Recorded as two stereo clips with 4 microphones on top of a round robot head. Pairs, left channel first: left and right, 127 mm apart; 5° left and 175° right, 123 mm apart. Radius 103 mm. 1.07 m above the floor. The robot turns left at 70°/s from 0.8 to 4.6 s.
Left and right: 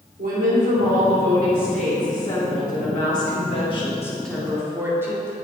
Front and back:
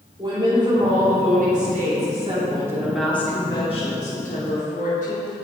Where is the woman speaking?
115° right, 3 m; by 5.3 s 20° right, 3 m.